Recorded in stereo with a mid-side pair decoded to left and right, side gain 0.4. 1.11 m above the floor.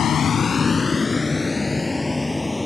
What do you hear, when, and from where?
0.0 s a vehicle: 65° left; by 2.7 s 15° left